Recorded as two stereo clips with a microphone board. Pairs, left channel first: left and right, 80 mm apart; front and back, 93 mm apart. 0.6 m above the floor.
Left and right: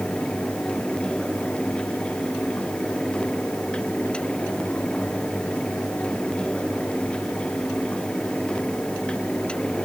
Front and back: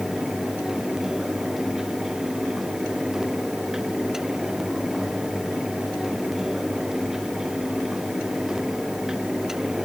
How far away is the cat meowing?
I don't hear a cat meowing.